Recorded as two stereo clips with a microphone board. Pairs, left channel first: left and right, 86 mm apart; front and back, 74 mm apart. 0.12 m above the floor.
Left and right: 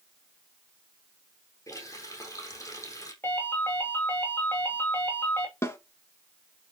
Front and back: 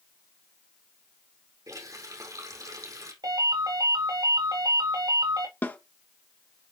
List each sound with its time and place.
1.7 s a running tap: 140° left, 4 m
3.2 s a ringtone: 155° left, 4.5 m
5.6 s a snare drum: 50° left, 1.6 m